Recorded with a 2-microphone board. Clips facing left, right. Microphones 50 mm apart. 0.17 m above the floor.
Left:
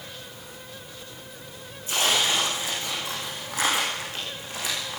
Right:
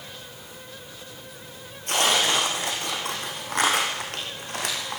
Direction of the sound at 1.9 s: 65° right (ahead or behind).